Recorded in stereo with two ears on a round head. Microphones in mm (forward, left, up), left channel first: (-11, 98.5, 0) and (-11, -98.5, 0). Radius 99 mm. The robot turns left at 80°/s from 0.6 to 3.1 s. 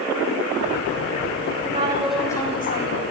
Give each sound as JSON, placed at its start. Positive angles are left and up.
{"t": 1.6, "sound": "a woman speaking", "azimuth_deg": -140, "distance_m": 7.5}